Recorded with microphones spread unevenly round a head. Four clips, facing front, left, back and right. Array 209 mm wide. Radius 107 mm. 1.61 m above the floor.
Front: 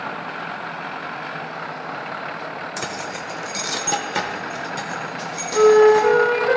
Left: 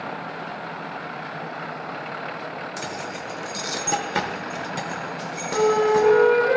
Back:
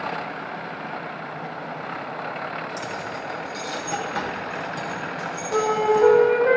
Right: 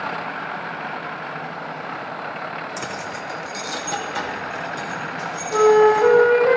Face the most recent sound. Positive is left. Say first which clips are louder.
# right 5 dB, front 8 dB
turn(degrees=-125)